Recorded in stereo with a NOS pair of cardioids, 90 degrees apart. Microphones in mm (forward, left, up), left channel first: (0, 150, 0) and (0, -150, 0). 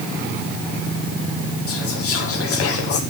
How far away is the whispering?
About 1.0 m.